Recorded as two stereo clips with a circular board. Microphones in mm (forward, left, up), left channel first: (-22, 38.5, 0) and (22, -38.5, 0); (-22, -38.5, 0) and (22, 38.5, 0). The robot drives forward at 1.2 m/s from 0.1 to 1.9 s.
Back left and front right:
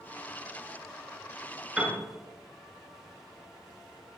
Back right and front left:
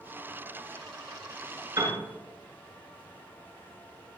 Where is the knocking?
No knocking in this recording.